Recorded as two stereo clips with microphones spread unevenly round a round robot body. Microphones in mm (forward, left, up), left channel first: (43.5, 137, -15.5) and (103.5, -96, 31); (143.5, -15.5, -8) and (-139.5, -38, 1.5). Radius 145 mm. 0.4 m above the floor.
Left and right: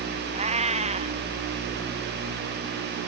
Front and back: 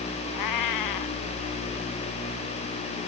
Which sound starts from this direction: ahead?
A cat meowing, at 0.3 s.